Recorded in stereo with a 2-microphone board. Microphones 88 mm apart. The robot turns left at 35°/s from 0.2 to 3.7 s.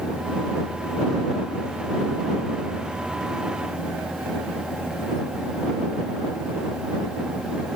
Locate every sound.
Only background noise.